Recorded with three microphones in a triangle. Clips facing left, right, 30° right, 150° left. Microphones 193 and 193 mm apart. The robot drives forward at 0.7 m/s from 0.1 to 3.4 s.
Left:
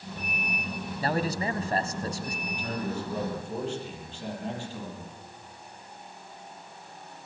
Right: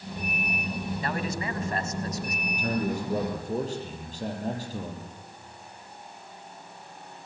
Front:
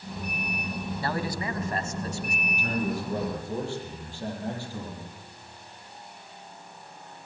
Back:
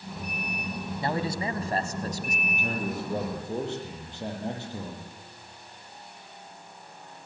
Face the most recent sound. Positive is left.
turn(degrees=-140)